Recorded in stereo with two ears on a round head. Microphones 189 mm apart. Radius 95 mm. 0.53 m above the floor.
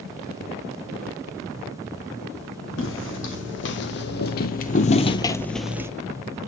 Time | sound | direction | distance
2.8 | footsteps | 70° left (ahead or behind) | 1.6 m